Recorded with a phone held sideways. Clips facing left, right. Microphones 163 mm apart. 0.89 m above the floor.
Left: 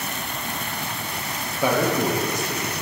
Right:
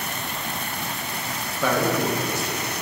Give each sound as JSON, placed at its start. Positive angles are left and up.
{"t": 1.6, "sound": "a man speaking", "side_deg": 15, "distance_m": 1.4}